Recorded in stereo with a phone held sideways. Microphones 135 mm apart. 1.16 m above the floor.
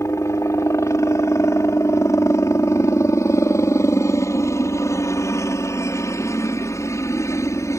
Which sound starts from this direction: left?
A helicopter, at 0.0 s.